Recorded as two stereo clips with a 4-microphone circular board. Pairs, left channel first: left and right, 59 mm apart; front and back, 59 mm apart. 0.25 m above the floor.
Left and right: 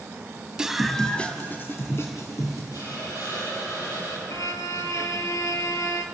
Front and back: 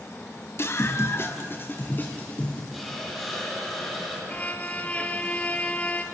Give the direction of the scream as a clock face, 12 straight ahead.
1 o'clock.